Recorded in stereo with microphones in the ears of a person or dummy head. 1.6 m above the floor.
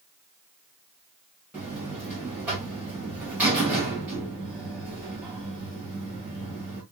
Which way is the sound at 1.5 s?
5° right (ahead or behind).